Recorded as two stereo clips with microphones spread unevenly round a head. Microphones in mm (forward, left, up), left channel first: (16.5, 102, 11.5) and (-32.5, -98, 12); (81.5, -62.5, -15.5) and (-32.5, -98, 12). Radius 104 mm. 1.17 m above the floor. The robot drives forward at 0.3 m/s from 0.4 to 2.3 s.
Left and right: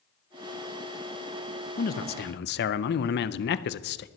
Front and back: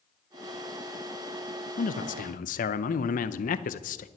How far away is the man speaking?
About 0.7 m.